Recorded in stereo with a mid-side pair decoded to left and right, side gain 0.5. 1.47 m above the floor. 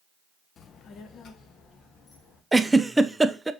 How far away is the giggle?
About 0.6 m.